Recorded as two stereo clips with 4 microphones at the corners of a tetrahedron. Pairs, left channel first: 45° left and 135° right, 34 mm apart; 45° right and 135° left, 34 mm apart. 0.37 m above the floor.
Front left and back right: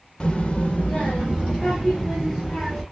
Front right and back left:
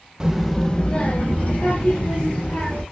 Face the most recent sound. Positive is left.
turn(degrees=-20)